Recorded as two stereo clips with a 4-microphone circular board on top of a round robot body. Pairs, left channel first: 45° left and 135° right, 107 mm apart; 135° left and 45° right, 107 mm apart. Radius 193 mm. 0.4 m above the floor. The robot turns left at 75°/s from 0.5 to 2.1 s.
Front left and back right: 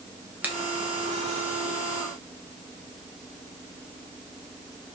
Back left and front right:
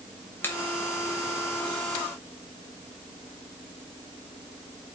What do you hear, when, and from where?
0.4 s a finger snap: 170° left, 1.2 m